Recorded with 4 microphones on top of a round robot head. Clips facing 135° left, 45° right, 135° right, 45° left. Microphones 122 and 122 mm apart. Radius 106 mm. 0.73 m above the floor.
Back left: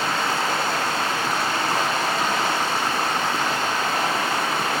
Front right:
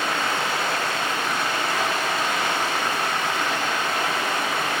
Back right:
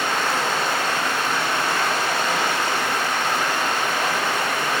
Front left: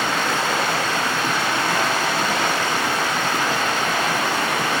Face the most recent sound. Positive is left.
turn(degrees=75)